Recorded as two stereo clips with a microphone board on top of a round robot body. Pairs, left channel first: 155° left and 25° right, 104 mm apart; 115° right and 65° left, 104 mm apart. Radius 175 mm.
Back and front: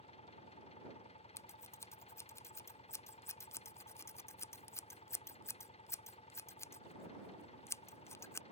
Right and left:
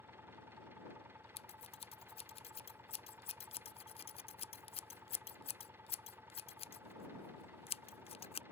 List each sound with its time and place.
0.0 s an engine running: 135° left
1.4 s scissors: 140° right